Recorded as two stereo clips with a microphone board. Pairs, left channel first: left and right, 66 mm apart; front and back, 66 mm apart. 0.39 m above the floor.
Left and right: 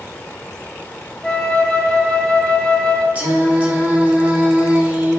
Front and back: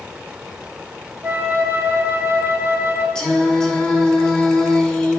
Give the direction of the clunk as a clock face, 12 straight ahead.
No clunk in this recording.